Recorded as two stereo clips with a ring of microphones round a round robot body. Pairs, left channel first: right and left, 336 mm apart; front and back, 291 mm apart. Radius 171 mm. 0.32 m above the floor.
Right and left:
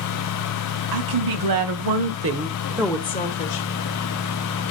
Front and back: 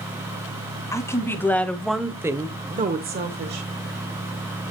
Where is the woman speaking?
80° left, 2.5 m; by 3.7 s 130° right, 1.5 m.